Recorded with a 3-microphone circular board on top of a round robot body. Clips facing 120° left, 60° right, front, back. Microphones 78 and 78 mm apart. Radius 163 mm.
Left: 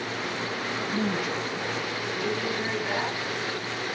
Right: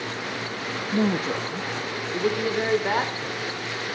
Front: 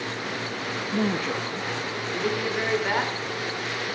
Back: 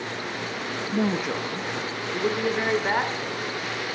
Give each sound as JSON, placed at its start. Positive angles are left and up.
{"t": 0.9, "sound": "a woman speaking", "azimuth_deg": -105, "distance_m": 0.8}